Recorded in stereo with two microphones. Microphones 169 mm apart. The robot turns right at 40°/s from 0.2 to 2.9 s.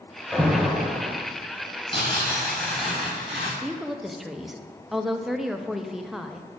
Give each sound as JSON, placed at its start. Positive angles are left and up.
{"t": 0.3, "sound": "an alarm", "azimuth_deg": 175, "distance_m": 1.1}
{"t": 1.9, "sound": "tearing paper", "azimuth_deg": 140, "distance_m": 3.0}
{"t": 3.6, "sound": "a woman speaking", "side_deg": 0, "distance_m": 0.5}